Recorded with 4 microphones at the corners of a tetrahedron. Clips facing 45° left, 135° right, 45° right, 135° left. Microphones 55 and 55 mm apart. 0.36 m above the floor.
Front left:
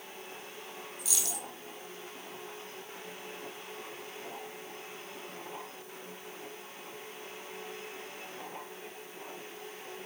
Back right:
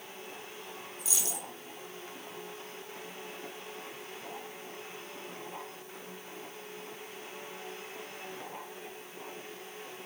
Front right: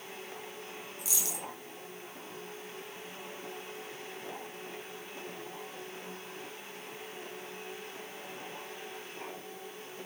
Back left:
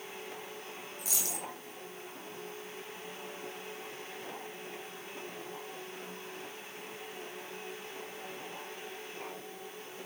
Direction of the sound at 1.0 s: 170° left.